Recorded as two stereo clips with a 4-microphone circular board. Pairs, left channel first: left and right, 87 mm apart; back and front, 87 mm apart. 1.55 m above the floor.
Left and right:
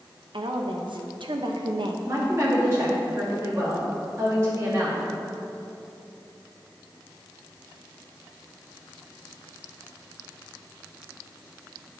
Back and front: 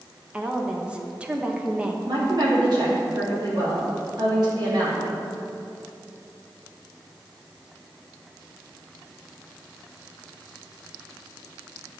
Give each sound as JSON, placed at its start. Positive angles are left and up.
{"t": 0.3, "sound": "a woman speaking", "azimuth_deg": -75, "distance_m": 0.9}
{"t": 2.1, "sound": "a woman speaking", "azimuth_deg": -35, "distance_m": 2.5}